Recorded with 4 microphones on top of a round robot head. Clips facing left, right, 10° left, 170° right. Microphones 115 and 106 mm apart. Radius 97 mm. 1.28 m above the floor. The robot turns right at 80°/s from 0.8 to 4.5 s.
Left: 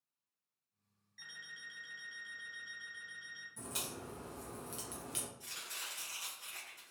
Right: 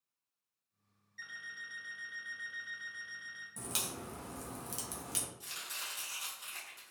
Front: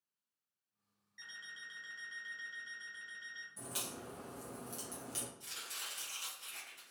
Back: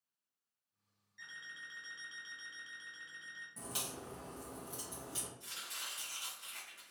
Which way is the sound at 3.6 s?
115° right.